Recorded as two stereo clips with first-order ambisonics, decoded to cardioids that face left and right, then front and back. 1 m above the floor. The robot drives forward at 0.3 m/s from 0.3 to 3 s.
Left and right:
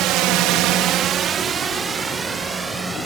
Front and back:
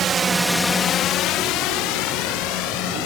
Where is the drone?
125° right; by 3.1 s 5° right.